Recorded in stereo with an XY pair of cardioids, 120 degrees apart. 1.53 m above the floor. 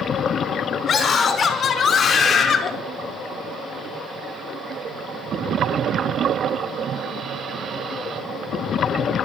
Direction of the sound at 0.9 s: 35° left.